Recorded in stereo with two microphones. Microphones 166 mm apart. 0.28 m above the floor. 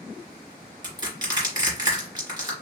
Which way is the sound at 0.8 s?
25° right (ahead or behind).